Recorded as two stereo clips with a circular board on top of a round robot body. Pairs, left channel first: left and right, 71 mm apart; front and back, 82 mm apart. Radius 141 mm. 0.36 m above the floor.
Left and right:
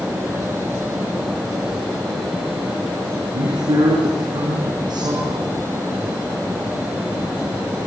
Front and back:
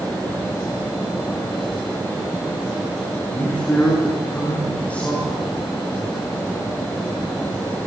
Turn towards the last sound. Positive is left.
turn(degrees=-75)